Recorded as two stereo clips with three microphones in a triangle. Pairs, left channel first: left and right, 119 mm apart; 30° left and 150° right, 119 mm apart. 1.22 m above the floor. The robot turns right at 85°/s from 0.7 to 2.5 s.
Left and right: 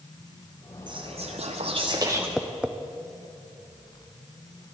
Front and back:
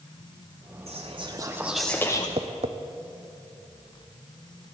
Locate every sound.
0.9 s whispering: 135° right, 0.7 m; by 2.3 s 15° right, 0.7 m
2.4 s tapping: straight behind, 0.6 m; by 2.8 s 170° right, 0.6 m